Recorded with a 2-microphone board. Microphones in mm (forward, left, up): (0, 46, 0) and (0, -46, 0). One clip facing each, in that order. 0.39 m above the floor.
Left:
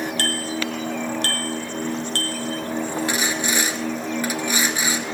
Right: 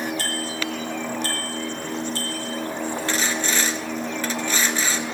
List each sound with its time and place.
0.2 s a bicycle bell: 75° left (ahead or behind), 4 m
3.1 s sawing: 15° left (ahead or behind), 1.3 m